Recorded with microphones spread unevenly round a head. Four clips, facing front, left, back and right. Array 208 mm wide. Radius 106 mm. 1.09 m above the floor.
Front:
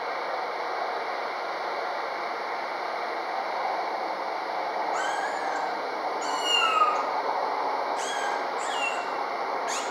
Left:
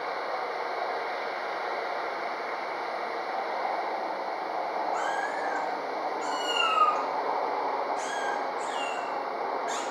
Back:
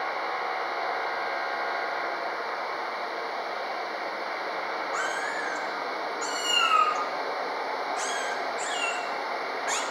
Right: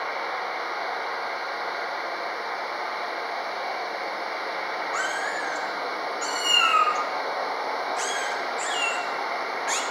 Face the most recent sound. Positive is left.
turn(degrees=-100)